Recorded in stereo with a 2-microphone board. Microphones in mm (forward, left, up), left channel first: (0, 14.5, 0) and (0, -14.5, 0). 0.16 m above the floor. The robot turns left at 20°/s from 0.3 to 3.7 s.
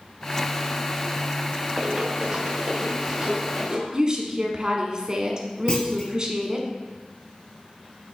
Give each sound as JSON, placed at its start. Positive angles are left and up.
{"t": 1.8, "sound": "running footsteps", "side_deg": -30, "distance_m": 1.0}
{"t": 3.9, "sound": "a woman speaking", "side_deg": -30, "distance_m": 1.2}
{"t": 5.7, "sound": "a clunk", "side_deg": 35, "distance_m": 1.2}